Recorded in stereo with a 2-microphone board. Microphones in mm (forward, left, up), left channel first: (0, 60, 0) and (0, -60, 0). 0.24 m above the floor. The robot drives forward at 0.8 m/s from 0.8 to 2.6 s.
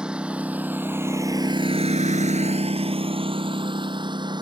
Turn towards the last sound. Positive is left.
turn(degrees=-40)  # may be behind; listen again after turning